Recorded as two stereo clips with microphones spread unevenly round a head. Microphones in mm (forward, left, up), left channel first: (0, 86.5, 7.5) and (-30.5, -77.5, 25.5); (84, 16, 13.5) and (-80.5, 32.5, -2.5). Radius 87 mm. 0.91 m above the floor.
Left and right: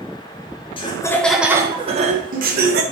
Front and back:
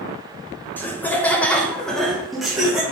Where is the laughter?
75° left, 0.7 m; by 2.8 s 100° right, 1.0 m.